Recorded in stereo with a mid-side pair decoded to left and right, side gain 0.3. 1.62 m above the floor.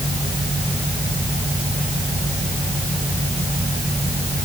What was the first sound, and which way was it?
Only background noise.